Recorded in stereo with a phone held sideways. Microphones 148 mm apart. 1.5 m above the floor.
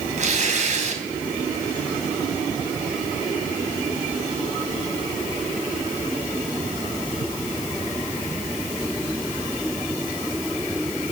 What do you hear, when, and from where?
0.2 s tearing paper: 55° right (ahead or behind), 3 m